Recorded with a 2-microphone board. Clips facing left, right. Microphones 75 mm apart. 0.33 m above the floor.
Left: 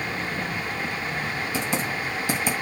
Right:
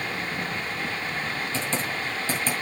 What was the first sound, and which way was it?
Typing on a keyboard, 15° left (ahead or behind).